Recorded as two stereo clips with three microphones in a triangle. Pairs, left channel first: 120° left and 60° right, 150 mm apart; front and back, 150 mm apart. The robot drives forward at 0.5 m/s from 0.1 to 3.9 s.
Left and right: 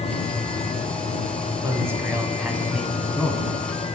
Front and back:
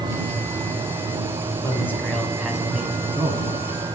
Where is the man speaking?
30° right, 1.1 m; by 3.5 s 160° right, 1.2 m.